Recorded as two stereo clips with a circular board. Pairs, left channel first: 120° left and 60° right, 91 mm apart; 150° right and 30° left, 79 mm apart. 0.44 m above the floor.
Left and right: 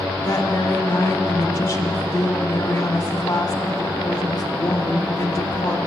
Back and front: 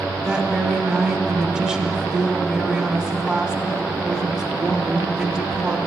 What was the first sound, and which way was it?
A woman speaking, 105° left.